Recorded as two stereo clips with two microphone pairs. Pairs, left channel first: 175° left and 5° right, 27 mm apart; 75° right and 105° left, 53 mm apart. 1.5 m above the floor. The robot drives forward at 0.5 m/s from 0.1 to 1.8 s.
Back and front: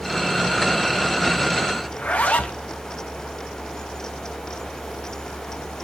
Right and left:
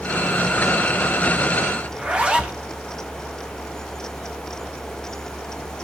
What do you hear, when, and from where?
1.9 s a zipper: 175° left, 1.0 m